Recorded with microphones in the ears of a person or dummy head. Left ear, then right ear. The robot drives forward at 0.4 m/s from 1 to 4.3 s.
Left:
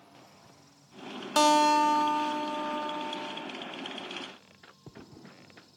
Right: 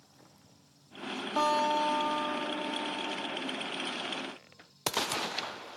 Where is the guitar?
60° left (ahead or behind), 0.8 m; by 3.5 s 40° left (ahead or behind), 1.1 m.